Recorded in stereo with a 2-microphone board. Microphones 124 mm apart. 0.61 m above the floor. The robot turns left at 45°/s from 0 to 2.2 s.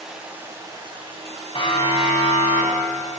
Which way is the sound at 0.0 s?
Straight ahead.